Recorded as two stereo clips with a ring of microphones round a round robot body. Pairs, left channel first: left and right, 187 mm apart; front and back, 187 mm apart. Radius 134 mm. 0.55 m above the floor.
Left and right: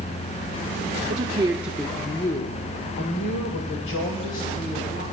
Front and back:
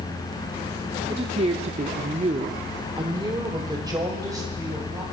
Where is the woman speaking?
120° right, 0.9 m; by 5.0 s 105° left, 3 m.